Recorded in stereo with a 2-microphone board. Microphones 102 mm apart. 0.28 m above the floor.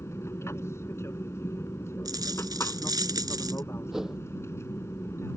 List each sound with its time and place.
0.0 s an aircraft: 25° left (ahead or behind)
2.0 s a dropped coin: 40° right (ahead or behind)
3.9 s a whoosh: 5° right (ahead or behind)